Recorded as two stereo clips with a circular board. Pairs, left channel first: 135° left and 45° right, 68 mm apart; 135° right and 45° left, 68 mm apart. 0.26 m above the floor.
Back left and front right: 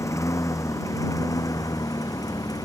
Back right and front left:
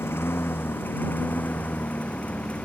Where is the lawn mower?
170° left; by 2.7 s 155° left.